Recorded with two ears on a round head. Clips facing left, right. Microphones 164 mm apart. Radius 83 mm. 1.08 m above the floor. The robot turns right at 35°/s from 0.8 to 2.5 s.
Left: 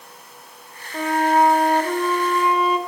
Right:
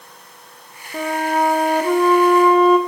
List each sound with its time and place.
0.9 s a flute: 95° right, 0.7 m; by 2.8 s 40° right, 0.7 m